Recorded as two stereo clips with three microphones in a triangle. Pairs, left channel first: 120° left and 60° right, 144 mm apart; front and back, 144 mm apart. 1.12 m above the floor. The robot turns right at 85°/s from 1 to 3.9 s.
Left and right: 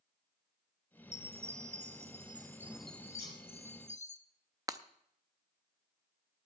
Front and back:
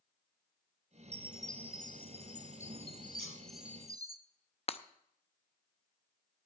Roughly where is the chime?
Behind right.